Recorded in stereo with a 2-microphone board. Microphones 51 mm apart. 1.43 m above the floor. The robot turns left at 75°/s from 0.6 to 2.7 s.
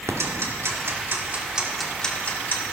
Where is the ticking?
65° right (ahead or behind), 1.7 m; by 2.7 s 55° left (ahead or behind), 1.7 m.